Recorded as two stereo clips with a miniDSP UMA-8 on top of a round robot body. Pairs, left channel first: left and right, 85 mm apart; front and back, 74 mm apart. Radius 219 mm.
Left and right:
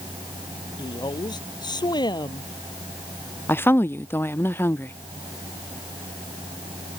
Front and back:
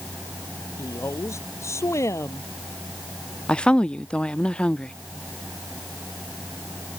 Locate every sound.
0.8 s a woman speaking: 55° left
3.5 s a woman speaking: 65° left